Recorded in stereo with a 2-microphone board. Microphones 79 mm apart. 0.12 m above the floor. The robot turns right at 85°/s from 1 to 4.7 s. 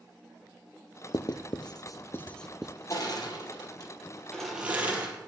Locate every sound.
1.1 s writing: 55° left (ahead or behind), 0.8 m; by 2.7 s 15° right (ahead or behind), 0.8 m
2.9 s crushing: 40° left (ahead or behind), 3.5 m; by 5.3 s 20° right (ahead or behind), 3.5 m